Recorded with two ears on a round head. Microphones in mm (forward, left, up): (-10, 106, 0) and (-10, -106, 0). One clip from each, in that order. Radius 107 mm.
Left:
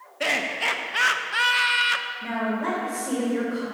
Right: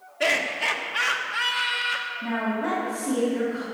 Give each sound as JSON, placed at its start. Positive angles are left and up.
{"t": 0.2, "sound": "laughter", "side_deg": 0, "distance_m": 1.3}
{"t": 2.2, "sound": "a woman speaking", "side_deg": 30, "distance_m": 3.0}